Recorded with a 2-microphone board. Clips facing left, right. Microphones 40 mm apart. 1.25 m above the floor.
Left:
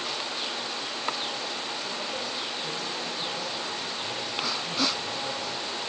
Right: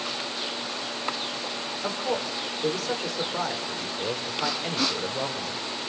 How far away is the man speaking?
About 4.5 m.